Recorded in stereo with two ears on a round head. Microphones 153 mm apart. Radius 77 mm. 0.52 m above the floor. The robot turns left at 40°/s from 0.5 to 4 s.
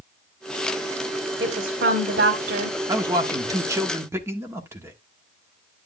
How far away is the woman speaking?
About 3 m.